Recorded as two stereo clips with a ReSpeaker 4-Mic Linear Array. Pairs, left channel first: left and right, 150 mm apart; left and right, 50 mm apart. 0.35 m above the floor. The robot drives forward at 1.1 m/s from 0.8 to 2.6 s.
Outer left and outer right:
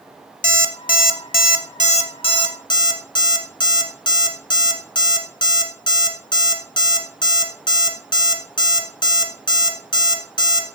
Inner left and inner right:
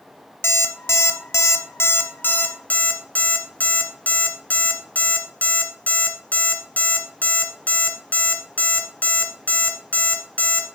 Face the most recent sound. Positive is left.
turn(degrees=30)  # may be behind; listen again after turning